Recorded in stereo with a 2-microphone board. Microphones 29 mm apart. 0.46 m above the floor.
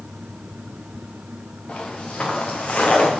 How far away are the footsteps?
About 3 m.